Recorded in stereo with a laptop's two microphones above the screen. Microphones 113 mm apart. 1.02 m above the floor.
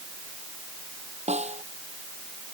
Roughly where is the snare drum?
Right.